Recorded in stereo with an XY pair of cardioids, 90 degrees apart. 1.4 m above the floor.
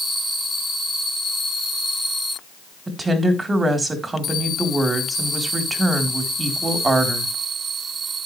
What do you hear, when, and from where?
2.9 s a woman speaking: 30° right, 4 m